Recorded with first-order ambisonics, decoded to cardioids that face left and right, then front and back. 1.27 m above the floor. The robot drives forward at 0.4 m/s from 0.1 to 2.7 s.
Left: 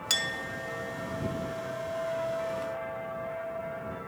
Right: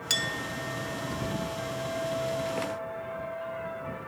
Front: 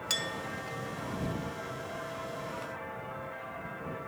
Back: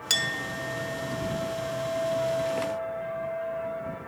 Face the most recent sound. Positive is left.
turn(degrees=180)